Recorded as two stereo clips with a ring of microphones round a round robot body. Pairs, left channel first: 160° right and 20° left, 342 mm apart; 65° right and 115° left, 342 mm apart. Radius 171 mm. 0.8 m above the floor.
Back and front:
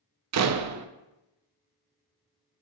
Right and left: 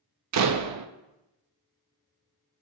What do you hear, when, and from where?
0.3 s a door slam: 70° left, 0.6 m